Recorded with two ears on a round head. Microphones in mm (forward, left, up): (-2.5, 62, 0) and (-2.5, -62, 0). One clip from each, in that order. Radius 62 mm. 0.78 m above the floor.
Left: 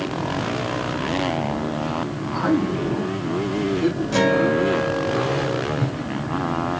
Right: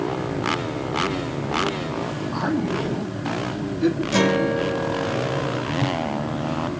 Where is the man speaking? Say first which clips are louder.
Left 4 dB; 75° right (ahead or behind), 5 m; by 4.0 s 60° right (ahead or behind), 5 m.